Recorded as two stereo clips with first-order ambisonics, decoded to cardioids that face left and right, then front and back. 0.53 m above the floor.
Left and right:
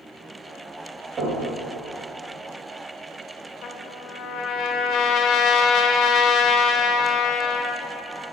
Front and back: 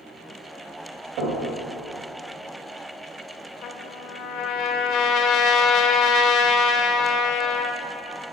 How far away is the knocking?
About 3 m.